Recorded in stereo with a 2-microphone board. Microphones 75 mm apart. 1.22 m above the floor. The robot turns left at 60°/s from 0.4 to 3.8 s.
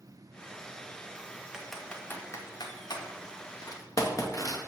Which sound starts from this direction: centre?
Typing on a keyboard, at 1.5 s.